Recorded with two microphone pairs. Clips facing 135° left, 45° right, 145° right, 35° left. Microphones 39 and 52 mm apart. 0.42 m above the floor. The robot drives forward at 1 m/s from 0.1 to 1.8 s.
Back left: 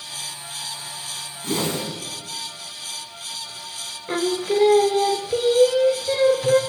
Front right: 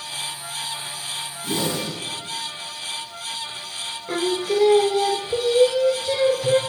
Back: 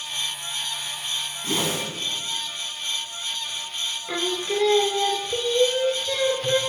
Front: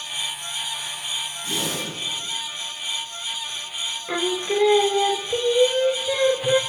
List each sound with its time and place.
1.4 s a whoosh: 165° left, 2.5 m
4.1 s singing: 85° left, 0.8 m